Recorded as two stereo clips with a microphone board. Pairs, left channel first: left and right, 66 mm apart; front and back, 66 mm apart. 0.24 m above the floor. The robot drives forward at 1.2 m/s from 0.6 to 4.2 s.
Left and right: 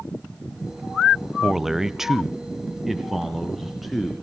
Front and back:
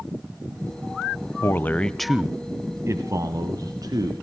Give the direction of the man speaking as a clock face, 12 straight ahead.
12 o'clock.